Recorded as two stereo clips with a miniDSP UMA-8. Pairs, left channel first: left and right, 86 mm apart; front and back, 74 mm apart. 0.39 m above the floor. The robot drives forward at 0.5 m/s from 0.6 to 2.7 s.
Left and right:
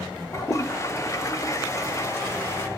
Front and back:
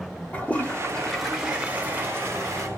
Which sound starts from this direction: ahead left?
A toilet flushing, at 0.3 s.